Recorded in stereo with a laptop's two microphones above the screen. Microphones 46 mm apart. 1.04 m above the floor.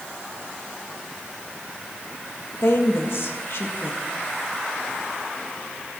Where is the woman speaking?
65° left (ahead or behind), 1.5 m.